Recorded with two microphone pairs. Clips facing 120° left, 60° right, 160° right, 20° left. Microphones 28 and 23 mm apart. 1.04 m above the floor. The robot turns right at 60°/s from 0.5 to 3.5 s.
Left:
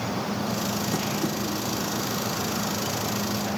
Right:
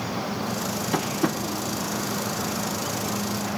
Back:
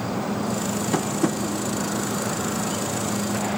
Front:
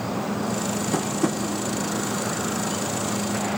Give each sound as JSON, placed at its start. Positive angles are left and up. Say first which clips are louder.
{"t": 0.9, "sound": "tapping", "louder": "right 2 dB, back 1 dB", "azimuth_deg": -95, "distance_m": 0.7}